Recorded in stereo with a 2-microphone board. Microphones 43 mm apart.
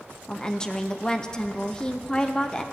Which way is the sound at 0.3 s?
20° left (ahead or behind).